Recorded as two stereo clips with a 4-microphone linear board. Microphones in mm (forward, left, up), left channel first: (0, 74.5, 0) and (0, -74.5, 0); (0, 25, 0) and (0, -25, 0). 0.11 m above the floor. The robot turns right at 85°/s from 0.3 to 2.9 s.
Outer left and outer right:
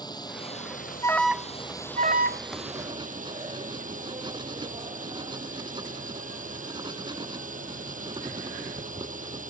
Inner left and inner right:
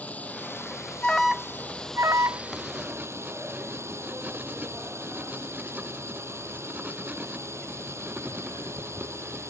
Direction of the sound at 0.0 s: 30° left.